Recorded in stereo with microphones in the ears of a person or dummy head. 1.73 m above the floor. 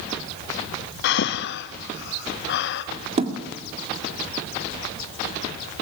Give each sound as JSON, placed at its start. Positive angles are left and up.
{"t": 1.0, "sound": "breathing", "side_deg": 65, "distance_m": 0.8}
{"t": 3.2, "sound": "a thud", "side_deg": -30, "distance_m": 2.0}